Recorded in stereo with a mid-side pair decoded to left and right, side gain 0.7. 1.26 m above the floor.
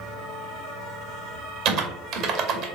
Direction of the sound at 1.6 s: 55° right.